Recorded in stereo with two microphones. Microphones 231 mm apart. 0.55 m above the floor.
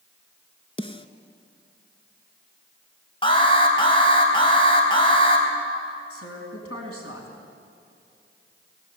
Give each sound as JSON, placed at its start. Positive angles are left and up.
{"t": 0.8, "sound": "a snare drum", "side_deg": 25, "distance_m": 1.2}
{"t": 3.2, "sound": "an alarm", "side_deg": 20, "distance_m": 4.5}
{"t": 6.1, "sound": "a woman speaking", "side_deg": 80, "distance_m": 5.0}